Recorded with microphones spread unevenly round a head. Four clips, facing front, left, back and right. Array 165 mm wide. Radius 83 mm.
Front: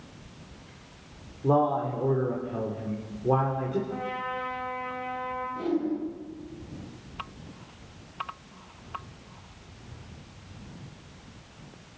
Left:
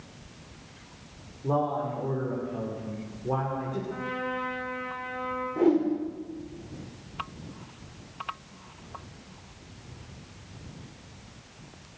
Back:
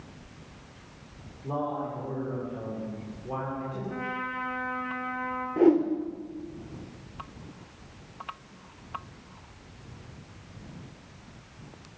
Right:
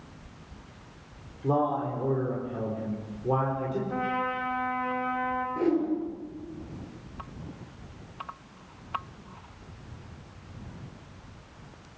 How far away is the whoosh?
About 3 m.